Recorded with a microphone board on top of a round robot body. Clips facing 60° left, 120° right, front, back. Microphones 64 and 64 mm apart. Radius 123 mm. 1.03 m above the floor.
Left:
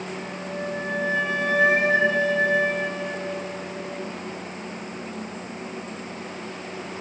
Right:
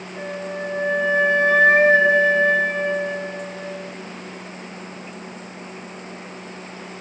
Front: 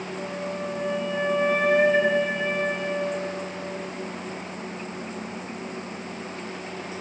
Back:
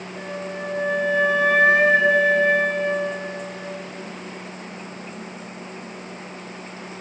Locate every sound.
0.2 s a flute: 175° right, 8.5 m